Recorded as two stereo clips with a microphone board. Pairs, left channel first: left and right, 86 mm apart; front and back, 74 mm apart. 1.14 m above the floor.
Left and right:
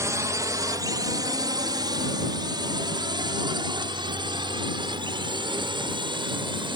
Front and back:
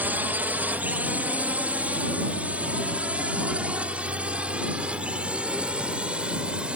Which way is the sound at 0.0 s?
125° right.